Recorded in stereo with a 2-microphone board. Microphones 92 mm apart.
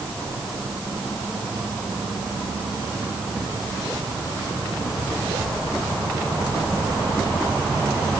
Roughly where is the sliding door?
I don't hear a sliding door.